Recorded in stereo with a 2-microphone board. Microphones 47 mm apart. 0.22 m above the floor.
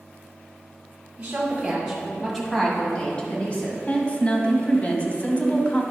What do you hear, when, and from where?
1.2 s a woman speaking: 35° right (ahead or behind), 1.8 m; by 3.8 s 30° left (ahead or behind), 2.5 m
3.9 s a woman speaking: 30° left (ahead or behind), 1.1 m